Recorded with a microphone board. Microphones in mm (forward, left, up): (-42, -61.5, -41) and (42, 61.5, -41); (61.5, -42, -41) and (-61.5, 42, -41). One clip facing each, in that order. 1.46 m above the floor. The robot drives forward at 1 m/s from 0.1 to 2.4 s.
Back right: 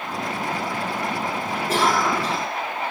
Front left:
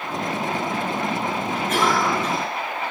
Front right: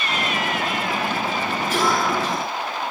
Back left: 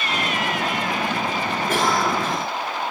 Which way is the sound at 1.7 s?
Straight behind.